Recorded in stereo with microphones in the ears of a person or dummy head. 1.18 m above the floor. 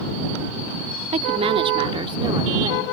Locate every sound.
1.1 s a woman speaking: 30° right (ahead or behind); by 2.9 s 20° right (ahead or behind)